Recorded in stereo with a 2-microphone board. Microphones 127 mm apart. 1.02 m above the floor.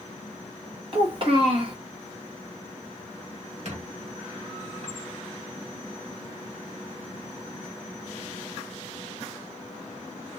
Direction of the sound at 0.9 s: 45° right (ahead or behind).